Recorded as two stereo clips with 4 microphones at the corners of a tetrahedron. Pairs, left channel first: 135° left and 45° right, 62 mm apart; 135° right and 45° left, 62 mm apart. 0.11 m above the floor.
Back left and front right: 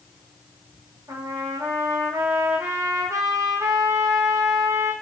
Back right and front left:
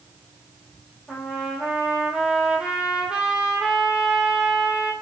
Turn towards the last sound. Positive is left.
turn(degrees=-30)